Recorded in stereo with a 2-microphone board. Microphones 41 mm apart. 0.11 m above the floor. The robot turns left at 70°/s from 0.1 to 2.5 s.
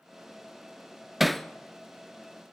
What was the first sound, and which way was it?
Hammering, 5° right (ahead or behind).